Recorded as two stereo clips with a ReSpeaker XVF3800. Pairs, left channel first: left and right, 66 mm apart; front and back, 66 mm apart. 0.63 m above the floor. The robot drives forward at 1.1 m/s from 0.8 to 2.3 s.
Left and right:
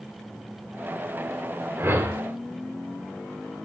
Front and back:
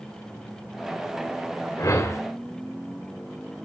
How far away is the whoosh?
About 2 m.